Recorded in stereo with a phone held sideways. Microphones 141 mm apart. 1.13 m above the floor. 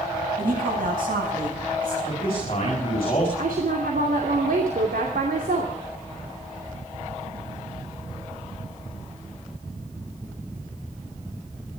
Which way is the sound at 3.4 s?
85° right.